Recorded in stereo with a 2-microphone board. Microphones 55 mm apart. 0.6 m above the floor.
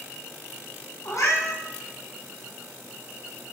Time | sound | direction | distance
1.1 | a cat meowing | 65° left (ahead or behind) | 3 m